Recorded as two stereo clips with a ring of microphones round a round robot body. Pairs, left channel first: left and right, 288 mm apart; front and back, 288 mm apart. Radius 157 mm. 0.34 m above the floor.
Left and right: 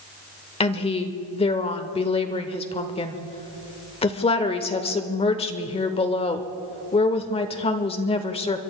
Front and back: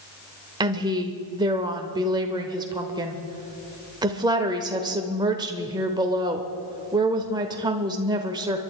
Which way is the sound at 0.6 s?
125° left.